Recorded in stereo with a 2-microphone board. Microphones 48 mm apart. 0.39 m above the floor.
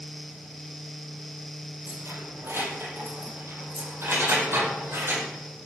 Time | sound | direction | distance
1.9 | keys jangling | 60° right (ahead or behind) | 6.5 m